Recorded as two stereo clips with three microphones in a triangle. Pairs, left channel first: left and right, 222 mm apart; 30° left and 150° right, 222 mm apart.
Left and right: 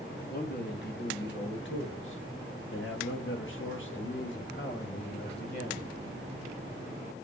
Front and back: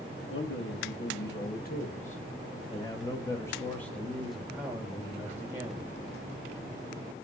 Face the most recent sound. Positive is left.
turn(degrees=135)